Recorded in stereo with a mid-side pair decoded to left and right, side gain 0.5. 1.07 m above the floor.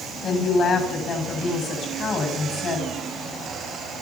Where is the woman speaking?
60° left, 6 m.